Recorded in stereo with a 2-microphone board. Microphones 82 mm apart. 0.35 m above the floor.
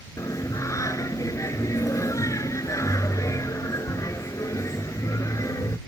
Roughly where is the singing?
Left.